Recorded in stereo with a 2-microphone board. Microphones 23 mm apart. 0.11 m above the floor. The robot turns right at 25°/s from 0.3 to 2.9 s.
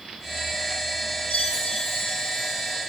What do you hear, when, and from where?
1.3 s a chime: 130° left, 3.5 m; by 2.8 s 165° left, 3.5 m